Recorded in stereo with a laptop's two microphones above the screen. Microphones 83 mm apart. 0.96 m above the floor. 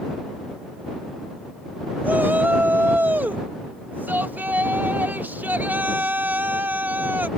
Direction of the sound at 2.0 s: 25° right (ahead or behind).